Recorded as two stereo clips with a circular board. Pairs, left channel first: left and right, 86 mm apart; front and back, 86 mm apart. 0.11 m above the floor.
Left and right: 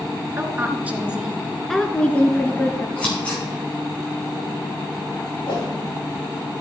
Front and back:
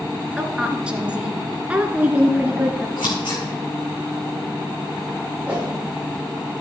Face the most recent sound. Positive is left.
turn(degrees=105)